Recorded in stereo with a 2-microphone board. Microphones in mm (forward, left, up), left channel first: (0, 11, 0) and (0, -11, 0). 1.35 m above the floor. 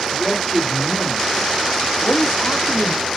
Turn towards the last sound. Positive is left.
turn(degrees=80)